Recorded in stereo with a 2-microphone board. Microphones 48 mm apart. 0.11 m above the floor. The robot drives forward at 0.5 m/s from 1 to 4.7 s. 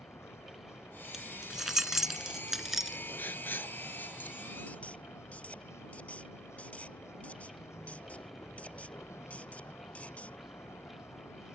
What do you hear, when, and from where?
0.0 s a vehicle: 75° left (ahead or behind); by 11.6 s 80° left
1.1 s keys jangling: 10° right (ahead or behind); by 3.0 s 5° right (ahead or behind)
3.2 s writing: 45° left (ahead or behind); by 10.4 s 30° left (ahead or behind)